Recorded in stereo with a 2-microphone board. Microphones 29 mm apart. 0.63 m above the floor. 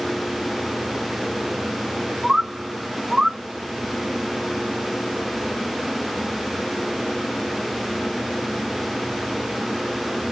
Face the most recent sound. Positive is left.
turn(degrees=-25)  # may be behind; listen again after turning